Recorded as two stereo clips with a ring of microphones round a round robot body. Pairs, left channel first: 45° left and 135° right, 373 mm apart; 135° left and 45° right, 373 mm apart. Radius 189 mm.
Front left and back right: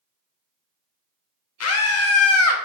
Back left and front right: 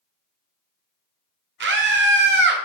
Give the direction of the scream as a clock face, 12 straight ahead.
12 o'clock.